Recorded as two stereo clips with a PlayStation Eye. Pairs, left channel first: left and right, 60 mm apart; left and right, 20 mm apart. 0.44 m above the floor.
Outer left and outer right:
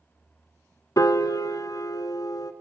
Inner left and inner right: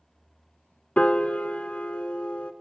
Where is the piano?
70° left (ahead or behind), 0.7 m.